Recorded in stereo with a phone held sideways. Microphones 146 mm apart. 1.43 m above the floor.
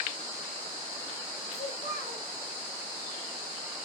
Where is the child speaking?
60° left (ahead or behind), 1.2 m.